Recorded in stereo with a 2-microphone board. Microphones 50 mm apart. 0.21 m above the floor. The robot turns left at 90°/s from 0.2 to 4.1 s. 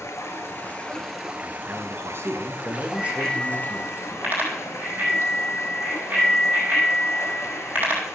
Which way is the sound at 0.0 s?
85° left.